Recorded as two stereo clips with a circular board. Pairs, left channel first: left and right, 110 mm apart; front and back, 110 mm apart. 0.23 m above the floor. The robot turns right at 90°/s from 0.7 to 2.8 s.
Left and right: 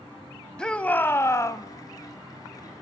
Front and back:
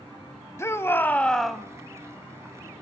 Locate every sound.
0.6 s a shout: 15° left, 1.0 m; by 1.6 s 105° left, 1.0 m